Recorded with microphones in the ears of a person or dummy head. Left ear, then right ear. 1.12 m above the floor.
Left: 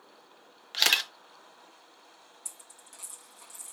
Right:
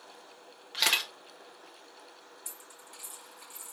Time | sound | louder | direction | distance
0.7 | a camera shutter | left 3 dB | 20° left (ahead or behind) | 0.5 m
2.5 | a dropped coin | left 1 dB | 40° left (ahead or behind) | 2 m